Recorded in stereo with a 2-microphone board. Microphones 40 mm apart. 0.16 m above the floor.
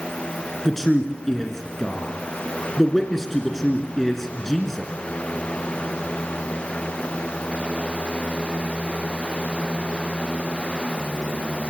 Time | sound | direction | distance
0.7 | a man speaking | 5° left (ahead or behind) | 2.5 m